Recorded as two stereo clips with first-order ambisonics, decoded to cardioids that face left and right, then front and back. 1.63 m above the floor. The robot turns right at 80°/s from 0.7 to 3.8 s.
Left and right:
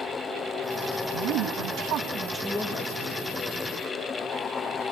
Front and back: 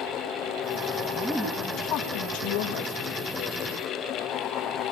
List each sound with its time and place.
1.1 s a woman speaking: 110° right, 2.5 m; by 3.1 s 55° left, 2.5 m